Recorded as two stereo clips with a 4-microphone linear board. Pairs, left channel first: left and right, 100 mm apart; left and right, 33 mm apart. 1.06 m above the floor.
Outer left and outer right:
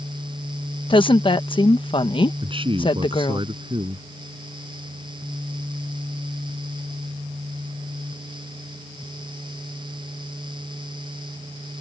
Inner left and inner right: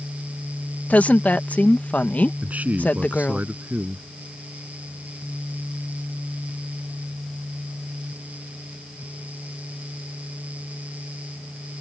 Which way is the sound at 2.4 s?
60° right (ahead or behind).